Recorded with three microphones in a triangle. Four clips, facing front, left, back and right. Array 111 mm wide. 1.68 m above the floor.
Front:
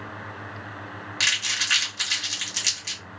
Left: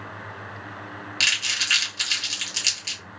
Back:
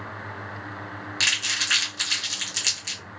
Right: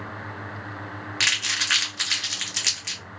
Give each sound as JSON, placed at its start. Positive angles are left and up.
{"t": 1.2, "sound": "crumpling", "azimuth_deg": -95, "distance_m": 1.4}